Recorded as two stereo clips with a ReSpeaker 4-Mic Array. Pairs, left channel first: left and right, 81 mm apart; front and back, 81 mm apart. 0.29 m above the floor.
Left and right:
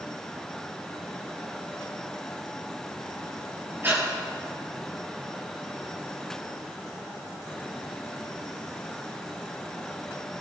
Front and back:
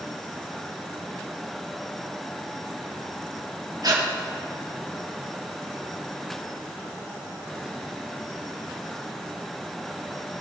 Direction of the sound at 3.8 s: 150° right.